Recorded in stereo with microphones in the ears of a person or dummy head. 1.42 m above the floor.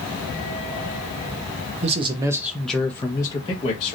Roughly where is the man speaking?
Right.